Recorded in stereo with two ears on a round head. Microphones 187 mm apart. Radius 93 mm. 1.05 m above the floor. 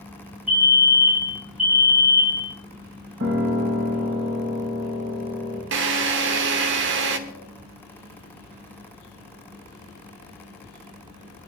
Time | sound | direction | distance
0.5 | a fire alarm | 5° right (ahead or behind) | 3.5 m
3.2 | a piano | 55° right (ahead or behind) | 8 m
5.7 | a drill | 60° right (ahead or behind) | 1.2 m